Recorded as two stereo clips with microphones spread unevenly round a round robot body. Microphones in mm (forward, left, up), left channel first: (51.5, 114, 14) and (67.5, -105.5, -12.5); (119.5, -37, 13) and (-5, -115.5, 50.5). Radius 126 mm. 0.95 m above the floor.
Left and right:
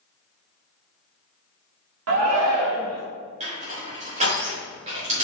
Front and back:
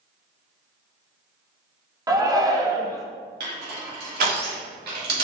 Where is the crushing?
150° right, 2.5 m.